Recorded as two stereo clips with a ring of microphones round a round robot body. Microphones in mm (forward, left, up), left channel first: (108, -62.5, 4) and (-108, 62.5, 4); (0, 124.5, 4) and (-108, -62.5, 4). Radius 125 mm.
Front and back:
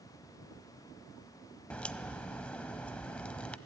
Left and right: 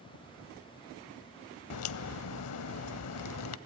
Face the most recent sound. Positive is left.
turn(degrees=55)